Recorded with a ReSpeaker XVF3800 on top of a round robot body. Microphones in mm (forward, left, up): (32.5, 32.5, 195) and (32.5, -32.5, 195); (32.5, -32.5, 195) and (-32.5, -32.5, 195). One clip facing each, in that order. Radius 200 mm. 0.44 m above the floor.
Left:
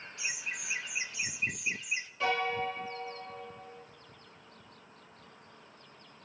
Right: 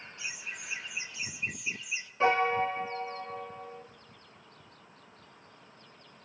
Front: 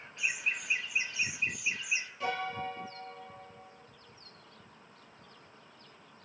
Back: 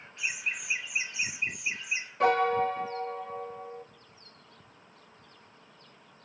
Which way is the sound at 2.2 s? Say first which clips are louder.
Right 6 dB, back 13 dB; 155° right.